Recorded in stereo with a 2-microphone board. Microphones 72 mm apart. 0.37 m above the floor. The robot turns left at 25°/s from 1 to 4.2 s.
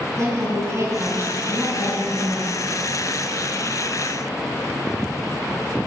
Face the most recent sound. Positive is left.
turn(degrees=155)